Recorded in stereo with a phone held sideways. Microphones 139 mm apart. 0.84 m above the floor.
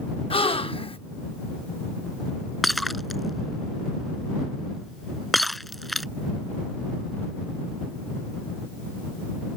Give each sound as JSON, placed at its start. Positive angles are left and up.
{"t": 0.3, "sound": "a gasp", "side_deg": 45}
{"t": 2.6, "sound": "breaking glass", "side_deg": 0}